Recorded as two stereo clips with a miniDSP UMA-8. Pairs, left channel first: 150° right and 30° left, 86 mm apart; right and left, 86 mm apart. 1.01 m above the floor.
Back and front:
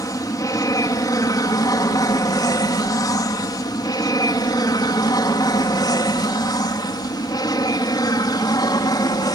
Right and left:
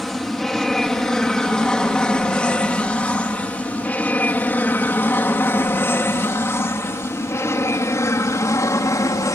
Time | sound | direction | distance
0.0 | an aircraft | straight behind | ?